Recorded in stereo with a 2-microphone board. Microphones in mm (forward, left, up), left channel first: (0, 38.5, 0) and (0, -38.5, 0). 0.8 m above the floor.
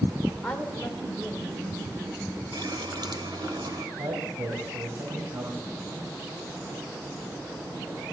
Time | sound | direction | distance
0.4 | a woman speaking | 15° left (ahead or behind) | 2.5 m
2.5 | a running tap | 80° right | 1.9 m
4.0 | a man speaking | 75° right (ahead or behind) | 4.5 m